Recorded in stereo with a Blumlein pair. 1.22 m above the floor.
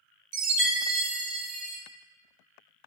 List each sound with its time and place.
0.3 s a chime: 50° right, 0.7 m